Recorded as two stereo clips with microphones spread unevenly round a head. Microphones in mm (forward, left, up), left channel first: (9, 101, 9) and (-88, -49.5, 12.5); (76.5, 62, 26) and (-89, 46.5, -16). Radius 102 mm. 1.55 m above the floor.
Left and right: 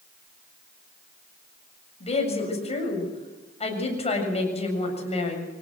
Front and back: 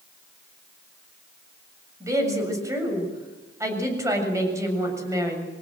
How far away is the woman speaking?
About 7 m.